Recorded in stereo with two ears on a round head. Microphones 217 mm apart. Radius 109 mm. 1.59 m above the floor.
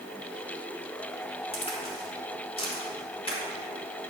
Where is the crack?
25° left (ahead or behind), 3 m.